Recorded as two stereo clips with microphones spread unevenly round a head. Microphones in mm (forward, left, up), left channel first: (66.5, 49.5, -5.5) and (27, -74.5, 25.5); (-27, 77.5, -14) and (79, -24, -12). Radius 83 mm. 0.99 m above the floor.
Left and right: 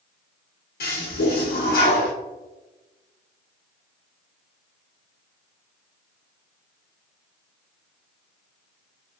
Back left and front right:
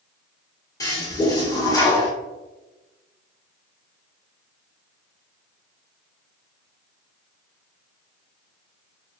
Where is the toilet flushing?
70° left, 1.4 m.